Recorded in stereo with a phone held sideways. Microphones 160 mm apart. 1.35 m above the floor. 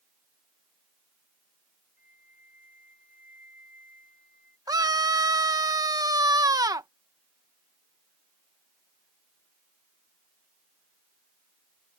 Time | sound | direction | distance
2.0 | a flute | 65° left (ahead or behind) | ?
4.7 | a scream | 25° right (ahead or behind) | ?